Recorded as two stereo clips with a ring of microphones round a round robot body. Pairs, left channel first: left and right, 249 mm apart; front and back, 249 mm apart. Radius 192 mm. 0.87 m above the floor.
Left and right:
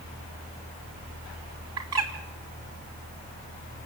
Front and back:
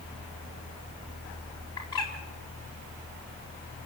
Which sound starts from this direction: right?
A bird, at 1.8 s.